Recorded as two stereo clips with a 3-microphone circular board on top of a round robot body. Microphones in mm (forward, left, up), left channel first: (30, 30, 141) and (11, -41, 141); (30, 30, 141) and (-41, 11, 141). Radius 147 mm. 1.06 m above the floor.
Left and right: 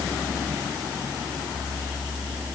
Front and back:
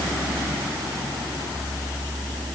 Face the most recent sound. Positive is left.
No sound to turn to.